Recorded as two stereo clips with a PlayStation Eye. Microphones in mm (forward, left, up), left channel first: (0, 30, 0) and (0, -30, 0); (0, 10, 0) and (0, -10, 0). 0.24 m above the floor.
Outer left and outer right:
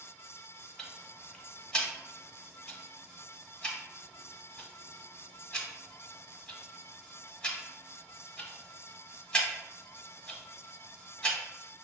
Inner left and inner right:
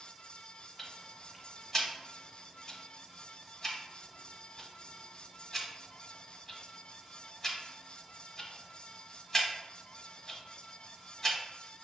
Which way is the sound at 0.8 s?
20° left (ahead or behind).